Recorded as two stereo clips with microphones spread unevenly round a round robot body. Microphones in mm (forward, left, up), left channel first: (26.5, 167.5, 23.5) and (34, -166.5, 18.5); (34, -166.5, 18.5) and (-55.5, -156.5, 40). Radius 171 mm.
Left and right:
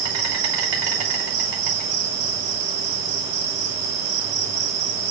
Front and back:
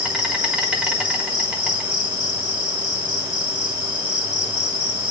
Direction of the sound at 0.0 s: 105° right.